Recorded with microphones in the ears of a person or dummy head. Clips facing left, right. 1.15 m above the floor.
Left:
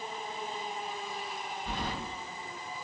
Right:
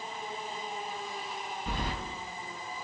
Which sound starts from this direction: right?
Keys jangling, at 1.7 s.